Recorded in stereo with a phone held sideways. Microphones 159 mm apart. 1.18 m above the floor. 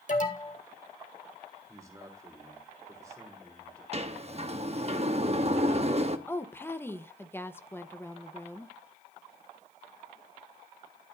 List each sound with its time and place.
0.1 s an alarm: 55° left (ahead or behind), 2 m
1.7 s a man speaking: 20° right (ahead or behind), 3 m
3.9 s a sliding door: 40° right (ahead or behind), 0.9 m
6.3 s a woman speaking: 15° left (ahead or behind), 0.9 m